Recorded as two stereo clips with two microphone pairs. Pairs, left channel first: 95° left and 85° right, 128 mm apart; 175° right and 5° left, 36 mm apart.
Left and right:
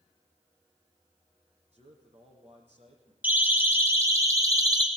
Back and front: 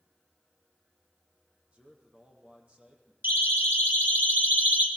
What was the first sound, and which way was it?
A man speaking, 50° right.